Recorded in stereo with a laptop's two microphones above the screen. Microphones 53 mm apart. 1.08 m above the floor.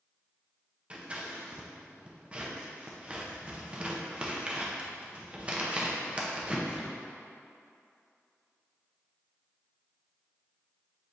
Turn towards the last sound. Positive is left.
turn(degrees=-25)  # may be behind; listen again after turning